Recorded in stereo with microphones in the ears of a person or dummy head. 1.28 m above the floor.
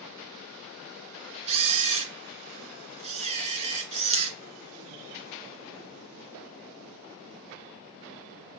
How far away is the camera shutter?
About 2 m.